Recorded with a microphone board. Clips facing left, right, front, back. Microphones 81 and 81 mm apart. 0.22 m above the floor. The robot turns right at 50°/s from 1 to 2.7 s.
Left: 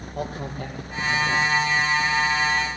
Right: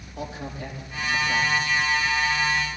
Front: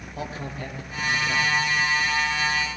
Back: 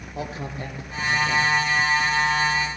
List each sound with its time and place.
0.1 s a man speaking: 125° left, 5 m; by 1.6 s 155° left, 5 m